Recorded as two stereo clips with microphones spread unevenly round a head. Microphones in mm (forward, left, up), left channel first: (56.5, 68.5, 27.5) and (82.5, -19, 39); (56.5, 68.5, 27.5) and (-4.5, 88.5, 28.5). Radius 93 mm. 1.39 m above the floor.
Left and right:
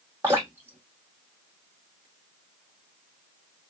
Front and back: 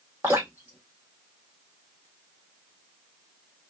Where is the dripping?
130° right, 0.9 m.